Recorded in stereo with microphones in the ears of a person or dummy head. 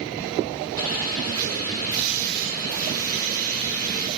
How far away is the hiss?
About 3.5 m.